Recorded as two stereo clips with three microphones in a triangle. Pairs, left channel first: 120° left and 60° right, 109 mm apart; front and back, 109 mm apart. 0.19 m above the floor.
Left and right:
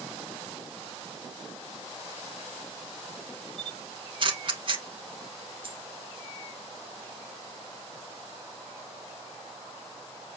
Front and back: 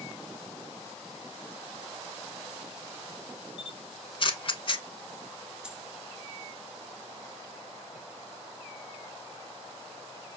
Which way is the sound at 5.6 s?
100° right.